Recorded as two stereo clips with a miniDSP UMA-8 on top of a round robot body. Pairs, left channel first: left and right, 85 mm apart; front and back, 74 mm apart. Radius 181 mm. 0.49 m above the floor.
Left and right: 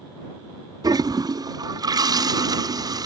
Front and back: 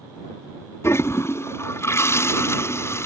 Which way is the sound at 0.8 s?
50° right.